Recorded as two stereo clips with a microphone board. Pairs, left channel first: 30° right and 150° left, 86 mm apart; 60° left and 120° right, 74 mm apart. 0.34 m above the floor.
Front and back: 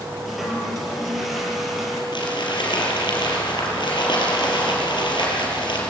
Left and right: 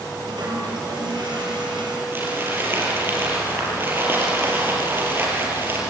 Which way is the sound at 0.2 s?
120° right.